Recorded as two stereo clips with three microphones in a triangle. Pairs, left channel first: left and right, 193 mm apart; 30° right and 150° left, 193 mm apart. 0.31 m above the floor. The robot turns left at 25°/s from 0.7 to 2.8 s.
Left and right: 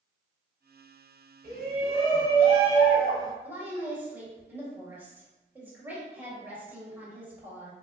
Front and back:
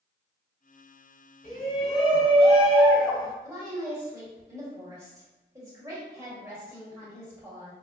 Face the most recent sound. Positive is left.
turn(degrees=-155)